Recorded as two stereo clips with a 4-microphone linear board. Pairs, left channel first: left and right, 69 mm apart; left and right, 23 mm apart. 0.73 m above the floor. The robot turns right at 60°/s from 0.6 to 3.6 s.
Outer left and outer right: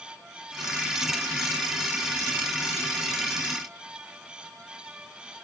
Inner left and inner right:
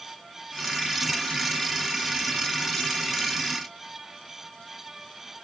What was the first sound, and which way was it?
Only background noise.